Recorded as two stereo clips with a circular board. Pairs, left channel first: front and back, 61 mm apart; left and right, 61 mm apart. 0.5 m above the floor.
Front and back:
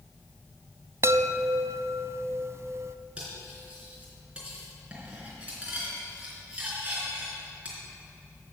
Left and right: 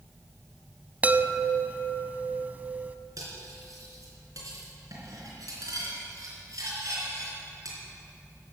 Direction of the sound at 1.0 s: 150° right.